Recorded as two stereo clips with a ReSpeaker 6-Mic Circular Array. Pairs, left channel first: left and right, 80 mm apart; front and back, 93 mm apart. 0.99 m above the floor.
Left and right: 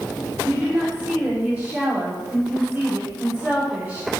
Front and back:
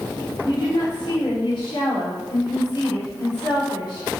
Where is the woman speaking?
20° right, 3 m.